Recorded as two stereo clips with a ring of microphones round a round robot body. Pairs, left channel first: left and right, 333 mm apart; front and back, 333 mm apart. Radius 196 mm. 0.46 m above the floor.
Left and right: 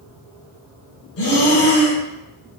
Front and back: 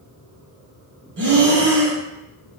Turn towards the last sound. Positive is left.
turn(degrees=125)